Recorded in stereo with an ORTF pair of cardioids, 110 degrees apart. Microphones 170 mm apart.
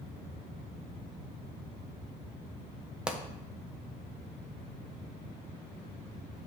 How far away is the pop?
About 1.1 m.